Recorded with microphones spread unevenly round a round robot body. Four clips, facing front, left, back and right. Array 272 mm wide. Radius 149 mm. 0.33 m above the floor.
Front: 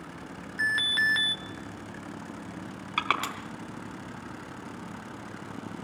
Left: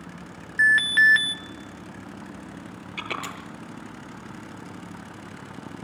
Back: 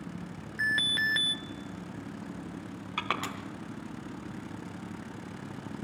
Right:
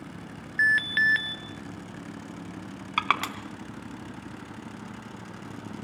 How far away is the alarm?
About 0.5 m.